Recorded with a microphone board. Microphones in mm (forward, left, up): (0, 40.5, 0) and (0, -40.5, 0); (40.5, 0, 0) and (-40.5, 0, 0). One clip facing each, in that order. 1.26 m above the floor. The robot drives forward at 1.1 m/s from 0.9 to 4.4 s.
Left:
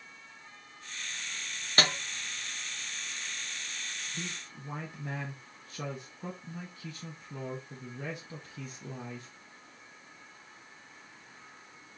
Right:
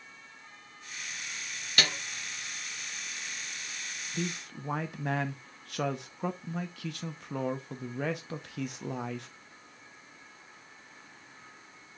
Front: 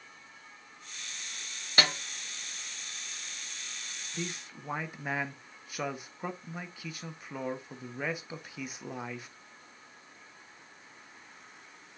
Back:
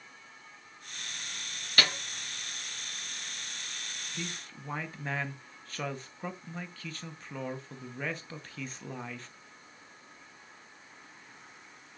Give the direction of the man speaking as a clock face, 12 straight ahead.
2 o'clock.